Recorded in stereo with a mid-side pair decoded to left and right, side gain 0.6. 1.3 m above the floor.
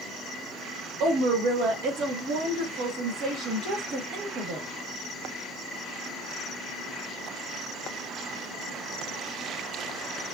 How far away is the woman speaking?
About 2.5 m.